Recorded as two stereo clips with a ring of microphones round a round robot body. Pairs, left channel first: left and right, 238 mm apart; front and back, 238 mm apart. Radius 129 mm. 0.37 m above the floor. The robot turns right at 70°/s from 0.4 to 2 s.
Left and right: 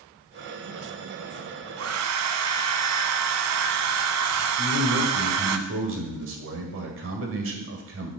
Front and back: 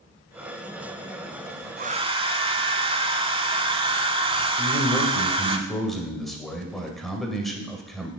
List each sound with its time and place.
1.8 s a hair dryer: 125° right, 0.7 m; by 5.6 s 110° right, 0.7 m
4.6 s a man speaking: 90° right, 1.9 m